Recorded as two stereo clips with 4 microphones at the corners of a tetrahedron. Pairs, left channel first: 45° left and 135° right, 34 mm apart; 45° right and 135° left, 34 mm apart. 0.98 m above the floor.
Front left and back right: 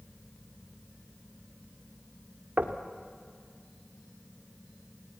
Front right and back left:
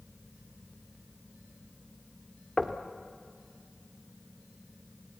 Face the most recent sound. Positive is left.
turn(degrees=-120)